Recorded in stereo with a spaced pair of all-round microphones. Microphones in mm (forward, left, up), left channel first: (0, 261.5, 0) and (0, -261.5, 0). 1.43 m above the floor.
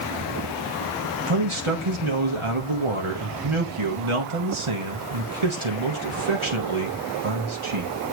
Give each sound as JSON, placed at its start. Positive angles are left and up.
{"t": 1.3, "sound": "a man speaking", "side_deg": -65, "distance_m": 1.8}